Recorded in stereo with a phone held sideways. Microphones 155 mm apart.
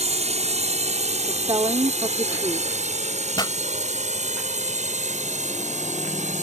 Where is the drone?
45° right (ahead or behind); by 6.4 s 50° right (ahead or behind).